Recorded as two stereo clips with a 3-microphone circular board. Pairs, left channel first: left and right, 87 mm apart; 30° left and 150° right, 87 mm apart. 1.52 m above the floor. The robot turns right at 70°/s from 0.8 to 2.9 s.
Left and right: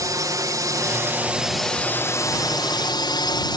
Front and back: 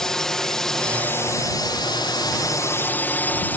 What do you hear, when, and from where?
0.0 s a drone: 55° right; by 3.6 s 95° left